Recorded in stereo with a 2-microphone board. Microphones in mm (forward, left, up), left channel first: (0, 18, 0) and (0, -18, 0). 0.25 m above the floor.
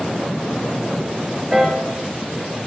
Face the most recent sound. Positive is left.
turn(degrees=-15)  # may be behind; listen again after turning